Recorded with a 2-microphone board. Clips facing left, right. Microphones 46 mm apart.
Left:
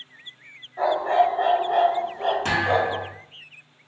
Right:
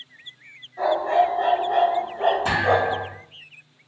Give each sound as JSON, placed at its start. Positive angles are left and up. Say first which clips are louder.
{"t": 0.8, "sound": "a dog barking", "louder": "even", "side_deg": 30, "distance_m": 1.3}
{"t": 2.5, "sound": "a thud", "louder": "right 2 dB", "side_deg": 75, "distance_m": 1.8}